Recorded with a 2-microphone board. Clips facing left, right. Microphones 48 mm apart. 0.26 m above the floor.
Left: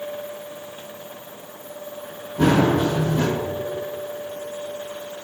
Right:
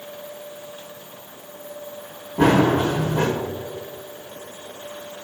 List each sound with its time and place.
2.4 s running footsteps: 40° right (ahead or behind), 2 m